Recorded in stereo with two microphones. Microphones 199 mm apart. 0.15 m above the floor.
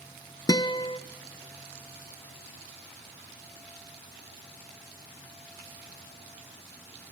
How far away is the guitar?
About 0.6 m.